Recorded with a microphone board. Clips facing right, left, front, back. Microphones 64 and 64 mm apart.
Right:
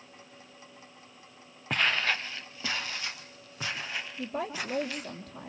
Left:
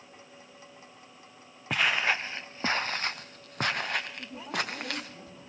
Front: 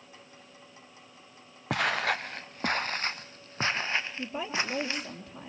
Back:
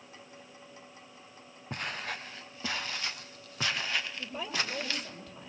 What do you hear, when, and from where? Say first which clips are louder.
1.7 s footsteps: left 1 dB, front 10 dB; straight ahead, 1.3 m; by 5.1 s 65° left, 4 m
4.2 s a woman speaking: right 1 dB, front 3 dB; 60° right, 6 m